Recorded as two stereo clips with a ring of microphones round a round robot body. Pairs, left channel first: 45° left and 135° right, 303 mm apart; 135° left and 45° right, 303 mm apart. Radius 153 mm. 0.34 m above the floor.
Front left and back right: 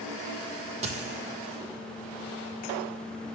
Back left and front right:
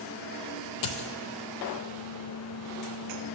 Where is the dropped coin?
155° left, 0.7 m.